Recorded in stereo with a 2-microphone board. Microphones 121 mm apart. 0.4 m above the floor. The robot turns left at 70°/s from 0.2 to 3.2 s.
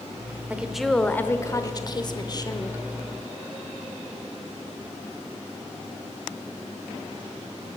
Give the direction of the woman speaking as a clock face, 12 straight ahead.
5 o'clock.